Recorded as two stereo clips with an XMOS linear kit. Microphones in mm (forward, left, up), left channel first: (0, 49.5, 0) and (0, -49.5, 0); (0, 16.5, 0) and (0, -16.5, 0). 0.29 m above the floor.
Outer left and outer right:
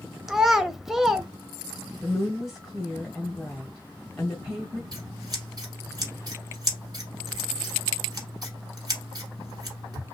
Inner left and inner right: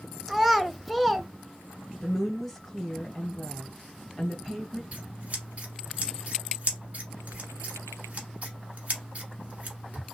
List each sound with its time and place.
0.3 s a child speaking: 5° right (ahead or behind), 0.5 m
2.0 s a woman speaking: centre (ahead or behind), 1.3 m
4.9 s scissors: 45° right (ahead or behind), 1.2 m